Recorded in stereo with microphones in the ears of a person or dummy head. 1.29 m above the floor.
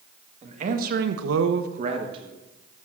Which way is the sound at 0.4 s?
40° right (ahead or behind).